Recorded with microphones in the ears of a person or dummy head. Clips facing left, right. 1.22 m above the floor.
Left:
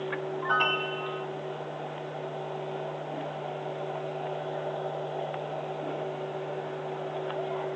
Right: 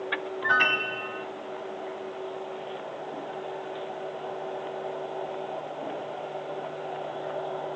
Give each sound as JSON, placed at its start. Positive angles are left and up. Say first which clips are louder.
{"t": 0.4, "sound": "a piano", "louder": "even", "side_deg": -30}